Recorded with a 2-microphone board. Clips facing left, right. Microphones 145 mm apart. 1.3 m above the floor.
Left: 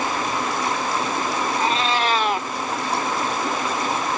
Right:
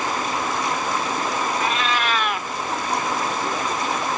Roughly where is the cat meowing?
Left.